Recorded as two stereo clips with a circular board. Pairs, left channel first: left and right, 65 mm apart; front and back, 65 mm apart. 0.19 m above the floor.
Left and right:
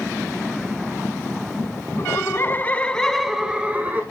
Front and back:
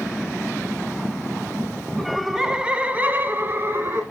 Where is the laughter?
90° left, 1.5 m; by 4.0 s 145° right, 1.5 m.